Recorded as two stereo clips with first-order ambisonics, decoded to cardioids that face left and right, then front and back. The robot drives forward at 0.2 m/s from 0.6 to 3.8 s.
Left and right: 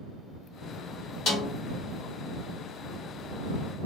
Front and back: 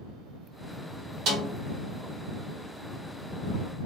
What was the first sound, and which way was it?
A snare drum, 140° left.